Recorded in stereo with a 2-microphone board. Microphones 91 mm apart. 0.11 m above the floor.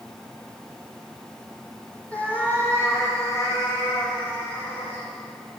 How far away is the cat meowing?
About 2 m.